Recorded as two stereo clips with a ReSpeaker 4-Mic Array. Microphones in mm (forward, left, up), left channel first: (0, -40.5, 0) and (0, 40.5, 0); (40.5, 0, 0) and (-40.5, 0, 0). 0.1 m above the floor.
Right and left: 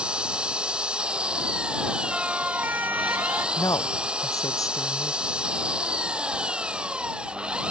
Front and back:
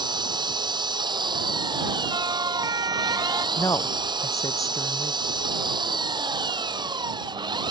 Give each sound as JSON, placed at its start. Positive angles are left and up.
{"t": 0.0, "sound": "an engine running", "azimuth_deg": 165}
{"t": 2.1, "sound": "a siren", "azimuth_deg": 165}
{"t": 3.6, "sound": "a woman speaking", "azimuth_deg": -45}